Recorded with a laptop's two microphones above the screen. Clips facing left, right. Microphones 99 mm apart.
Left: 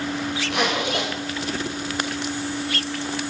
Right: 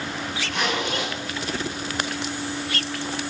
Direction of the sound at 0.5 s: 85° left.